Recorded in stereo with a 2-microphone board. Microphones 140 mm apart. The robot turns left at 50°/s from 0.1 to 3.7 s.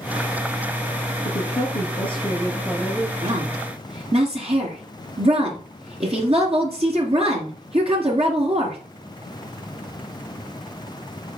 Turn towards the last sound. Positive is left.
turn(degrees=-45)  # may be behind; listen again after turning